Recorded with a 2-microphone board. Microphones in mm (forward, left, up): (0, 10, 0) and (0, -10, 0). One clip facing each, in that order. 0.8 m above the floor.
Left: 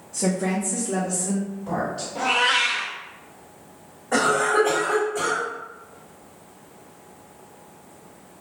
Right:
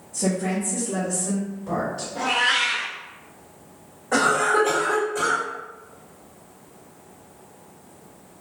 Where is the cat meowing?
10° left (ahead or behind), 1.7 m.